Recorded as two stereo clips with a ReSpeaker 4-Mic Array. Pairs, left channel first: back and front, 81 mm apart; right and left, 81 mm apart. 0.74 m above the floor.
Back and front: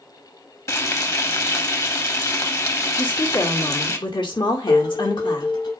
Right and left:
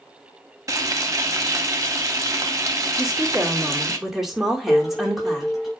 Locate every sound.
0.7 s frying: 135° left, 1.2 m
3.0 s a woman speaking: 175° left, 2.5 m
4.7 s dishes clattering: straight behind, 4.5 m